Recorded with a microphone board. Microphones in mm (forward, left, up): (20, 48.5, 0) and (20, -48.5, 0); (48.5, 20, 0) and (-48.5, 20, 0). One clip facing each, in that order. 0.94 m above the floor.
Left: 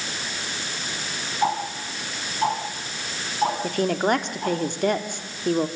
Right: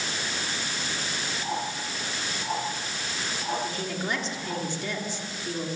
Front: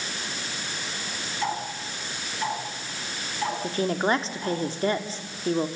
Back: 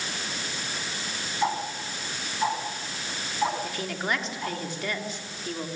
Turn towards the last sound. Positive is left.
turn(degrees=60)